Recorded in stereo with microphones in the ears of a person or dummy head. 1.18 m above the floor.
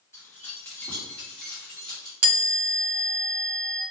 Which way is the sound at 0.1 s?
15° left (ahead or behind).